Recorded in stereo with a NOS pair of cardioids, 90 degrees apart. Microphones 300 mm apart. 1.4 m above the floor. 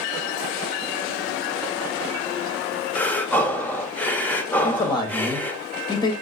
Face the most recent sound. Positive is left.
turn(degrees=15)